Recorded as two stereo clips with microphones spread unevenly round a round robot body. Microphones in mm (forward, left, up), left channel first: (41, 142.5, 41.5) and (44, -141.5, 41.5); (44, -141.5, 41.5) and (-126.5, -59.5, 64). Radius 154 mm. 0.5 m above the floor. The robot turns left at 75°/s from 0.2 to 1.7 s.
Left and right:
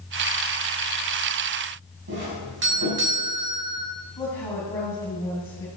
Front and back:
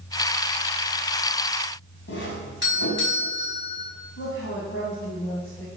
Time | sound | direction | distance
2.1 | a doorbell | 40° right | 5 m
4.2 | a woman speaking | 15° left | 3.5 m